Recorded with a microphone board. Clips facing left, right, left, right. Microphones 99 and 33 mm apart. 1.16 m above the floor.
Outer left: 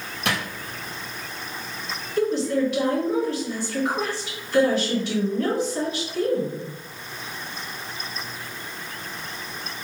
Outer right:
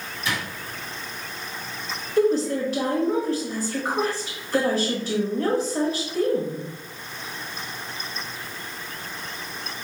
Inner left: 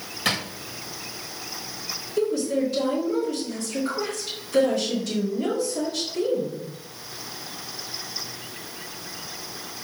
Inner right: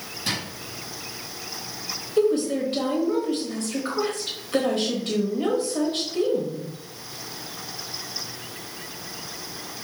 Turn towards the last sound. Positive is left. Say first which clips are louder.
# outer right 2 dB, inner right 2 dB
turn(degrees=-40)  # may be behind; listen again after turning